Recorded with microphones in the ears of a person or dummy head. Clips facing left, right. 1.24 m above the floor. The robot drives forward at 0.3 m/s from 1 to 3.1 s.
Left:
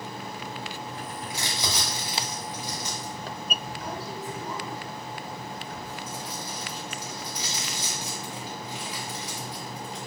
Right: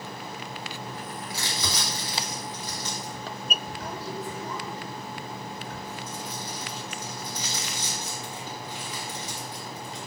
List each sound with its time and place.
1.3 s crumpling: 20° left (ahead or behind), 1.0 m; by 10.0 s 10° left (ahead or behind), 1.5 m